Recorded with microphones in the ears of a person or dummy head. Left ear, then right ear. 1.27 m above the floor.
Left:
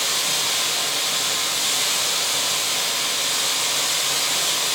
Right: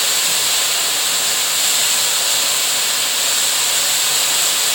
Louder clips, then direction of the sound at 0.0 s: Right 4 dB; 35° right (ahead or behind).